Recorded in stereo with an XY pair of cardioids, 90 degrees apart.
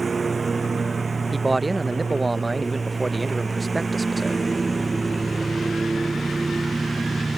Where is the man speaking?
25° right.